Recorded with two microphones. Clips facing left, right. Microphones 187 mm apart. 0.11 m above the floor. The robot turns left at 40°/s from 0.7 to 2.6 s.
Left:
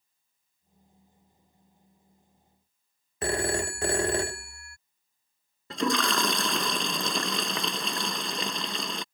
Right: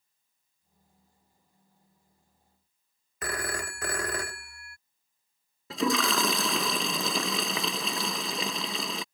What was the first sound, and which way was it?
A phone ringing, 30° left (ahead or behind).